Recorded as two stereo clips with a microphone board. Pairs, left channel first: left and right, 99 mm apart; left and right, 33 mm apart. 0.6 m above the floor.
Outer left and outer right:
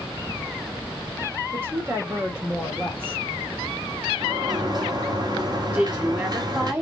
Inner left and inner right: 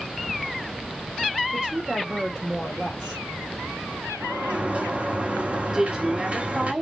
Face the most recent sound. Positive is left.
turn(degrees=-20)  # may be behind; listen again after turning